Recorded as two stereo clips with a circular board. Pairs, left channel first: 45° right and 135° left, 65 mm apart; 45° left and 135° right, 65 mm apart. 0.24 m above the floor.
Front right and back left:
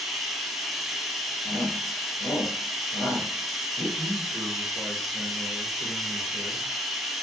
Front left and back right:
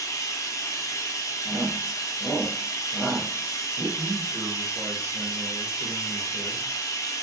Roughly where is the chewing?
No chewing in this recording.